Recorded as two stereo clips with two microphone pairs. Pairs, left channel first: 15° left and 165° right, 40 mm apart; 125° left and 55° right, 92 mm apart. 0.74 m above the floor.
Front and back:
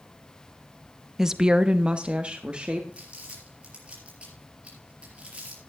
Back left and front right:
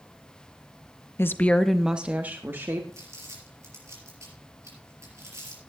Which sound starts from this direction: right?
Crumpling, at 2.9 s.